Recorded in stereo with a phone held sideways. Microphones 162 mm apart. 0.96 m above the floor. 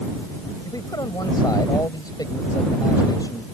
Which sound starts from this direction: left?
A man speaking, at 0.7 s.